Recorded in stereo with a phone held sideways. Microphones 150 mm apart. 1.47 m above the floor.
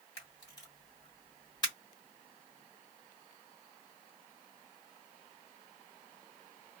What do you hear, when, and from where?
0.2 s a camera shutter: 25° left (ahead or behind), 1.5 m